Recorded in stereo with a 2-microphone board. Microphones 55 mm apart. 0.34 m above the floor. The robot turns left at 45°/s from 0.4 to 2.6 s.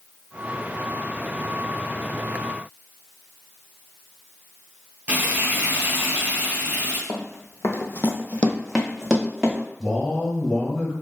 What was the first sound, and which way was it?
Frying, 25° right (ahead or behind).